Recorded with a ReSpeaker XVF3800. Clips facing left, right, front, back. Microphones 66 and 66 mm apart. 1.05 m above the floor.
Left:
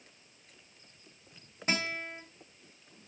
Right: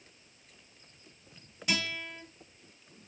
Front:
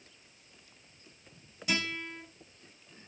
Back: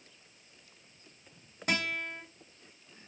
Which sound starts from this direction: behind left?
A guitar, at 1.7 s.